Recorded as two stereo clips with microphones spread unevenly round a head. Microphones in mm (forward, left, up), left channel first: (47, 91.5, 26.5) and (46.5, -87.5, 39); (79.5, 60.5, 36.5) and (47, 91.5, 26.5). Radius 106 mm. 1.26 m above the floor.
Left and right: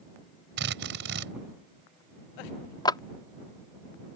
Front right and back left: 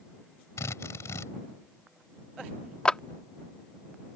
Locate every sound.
0.6 s a drill: 75° right
2.9 s a clap: 25° left